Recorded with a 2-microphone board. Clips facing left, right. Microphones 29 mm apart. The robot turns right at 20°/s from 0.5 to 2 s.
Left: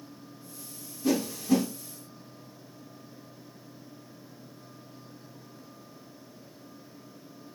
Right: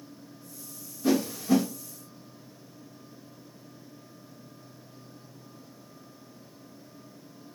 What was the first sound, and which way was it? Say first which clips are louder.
A whoosh: right 1 dB; 10° right (ahead or behind).